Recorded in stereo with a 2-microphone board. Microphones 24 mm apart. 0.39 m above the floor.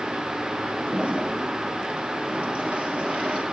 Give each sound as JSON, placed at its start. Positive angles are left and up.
{"t": 0.9, "sound": "a toilet flushing", "side_deg": -65, "distance_m": 3.5}